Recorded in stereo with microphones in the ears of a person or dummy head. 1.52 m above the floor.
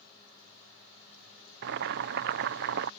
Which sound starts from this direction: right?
Boiling, at 1.6 s.